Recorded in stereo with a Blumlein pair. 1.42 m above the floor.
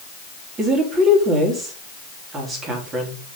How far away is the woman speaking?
About 3 m.